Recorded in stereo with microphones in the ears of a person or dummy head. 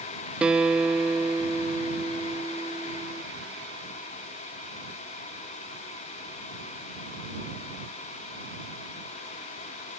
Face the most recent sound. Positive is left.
turn(degrees=-5)  # may be behind; listen again after turning